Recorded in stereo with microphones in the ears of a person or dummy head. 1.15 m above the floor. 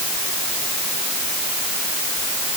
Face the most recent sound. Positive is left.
No sound to turn to.